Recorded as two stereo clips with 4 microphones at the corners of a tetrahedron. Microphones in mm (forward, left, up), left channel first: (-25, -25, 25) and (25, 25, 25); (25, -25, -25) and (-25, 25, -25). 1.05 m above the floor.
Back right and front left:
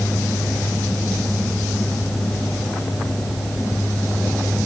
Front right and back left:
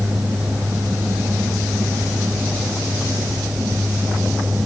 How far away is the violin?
I don't hear a violin.